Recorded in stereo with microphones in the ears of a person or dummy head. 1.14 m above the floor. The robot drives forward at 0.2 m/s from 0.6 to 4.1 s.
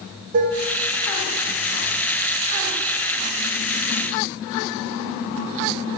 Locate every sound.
0.3 s dishes clattering: 45° right (ahead or behind), 0.6 m